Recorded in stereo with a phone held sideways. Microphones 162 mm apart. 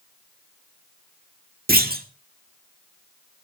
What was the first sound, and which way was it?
A clunk, 75° right (ahead or behind).